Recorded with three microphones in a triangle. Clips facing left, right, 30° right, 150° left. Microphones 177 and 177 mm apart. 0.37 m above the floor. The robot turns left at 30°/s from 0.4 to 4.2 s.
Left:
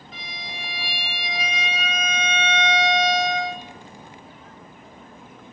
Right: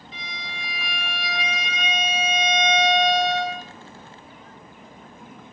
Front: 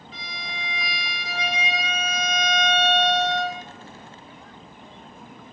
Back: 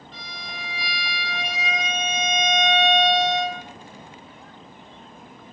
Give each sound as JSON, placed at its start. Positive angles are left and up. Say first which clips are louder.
{"t": 0.1, "sound": "a violin", "louder": "left 1 dB, front 2 dB", "azimuth_deg": 50, "distance_m": 0.7}